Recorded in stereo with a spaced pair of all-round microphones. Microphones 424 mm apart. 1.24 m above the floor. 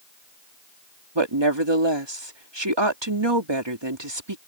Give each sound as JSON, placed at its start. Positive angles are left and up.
{"t": 1.1, "sound": "a woman speaking", "side_deg": -80}